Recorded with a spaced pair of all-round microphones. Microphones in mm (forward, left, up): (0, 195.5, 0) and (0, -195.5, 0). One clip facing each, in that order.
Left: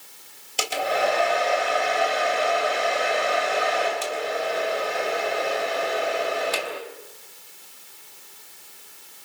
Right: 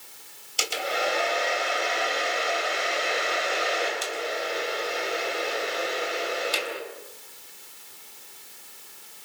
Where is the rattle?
No rattle in this recording.